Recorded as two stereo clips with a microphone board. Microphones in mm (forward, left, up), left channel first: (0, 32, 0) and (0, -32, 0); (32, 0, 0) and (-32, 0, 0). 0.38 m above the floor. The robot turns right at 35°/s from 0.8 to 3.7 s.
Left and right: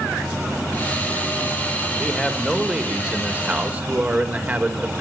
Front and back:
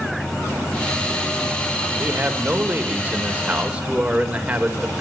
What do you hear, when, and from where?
2.0 s a man speaking: 170° left, 1.6 m; by 5.0 s 130° right, 1.6 m